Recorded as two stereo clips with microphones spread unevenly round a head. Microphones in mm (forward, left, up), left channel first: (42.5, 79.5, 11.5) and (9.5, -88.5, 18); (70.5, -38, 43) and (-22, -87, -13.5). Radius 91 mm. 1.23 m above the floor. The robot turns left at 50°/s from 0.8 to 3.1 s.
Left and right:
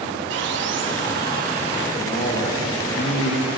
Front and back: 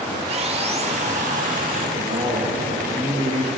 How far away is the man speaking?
About 1.6 m.